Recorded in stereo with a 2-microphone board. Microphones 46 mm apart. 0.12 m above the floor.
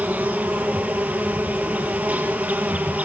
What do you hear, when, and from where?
0.0 s an insect: 35° right (ahead or behind), 3.5 m